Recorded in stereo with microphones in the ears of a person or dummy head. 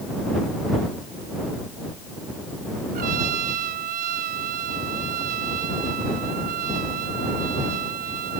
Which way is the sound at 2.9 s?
50° right (ahead or behind).